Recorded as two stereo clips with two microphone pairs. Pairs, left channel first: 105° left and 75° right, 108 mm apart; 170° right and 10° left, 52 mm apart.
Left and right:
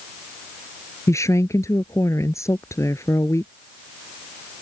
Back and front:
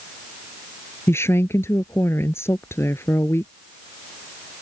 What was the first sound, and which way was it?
A woman speaking, 165° left.